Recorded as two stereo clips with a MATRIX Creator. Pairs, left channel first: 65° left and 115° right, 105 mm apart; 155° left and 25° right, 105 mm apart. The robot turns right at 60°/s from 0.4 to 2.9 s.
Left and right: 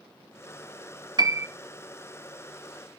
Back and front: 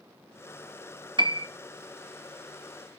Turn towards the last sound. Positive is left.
turn(degrees=40)